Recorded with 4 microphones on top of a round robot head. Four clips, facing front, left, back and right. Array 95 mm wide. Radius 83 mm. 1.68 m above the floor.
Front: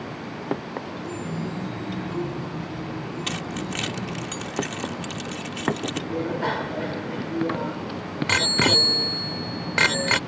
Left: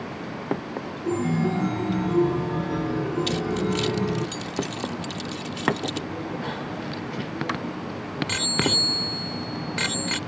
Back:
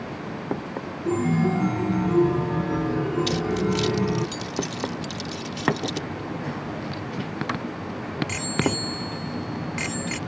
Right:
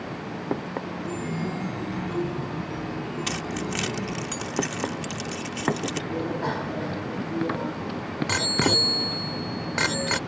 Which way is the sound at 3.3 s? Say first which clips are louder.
Left 5 dB, back 7 dB; 45° right.